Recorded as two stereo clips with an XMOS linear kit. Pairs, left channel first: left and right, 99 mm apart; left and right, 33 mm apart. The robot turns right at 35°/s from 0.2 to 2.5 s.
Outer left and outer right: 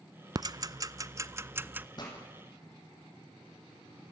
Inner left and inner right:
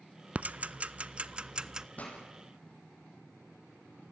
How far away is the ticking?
About 0.5 m.